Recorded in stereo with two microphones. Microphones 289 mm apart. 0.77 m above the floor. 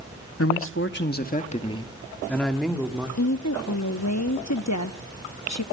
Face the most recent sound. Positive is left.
turn(degrees=65)  # may be behind; listen again after turning